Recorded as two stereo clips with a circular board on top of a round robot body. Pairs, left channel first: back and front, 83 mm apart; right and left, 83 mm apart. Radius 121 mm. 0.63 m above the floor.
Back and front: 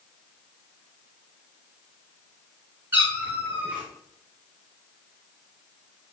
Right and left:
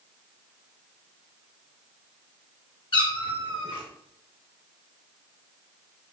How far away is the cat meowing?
About 1.5 m.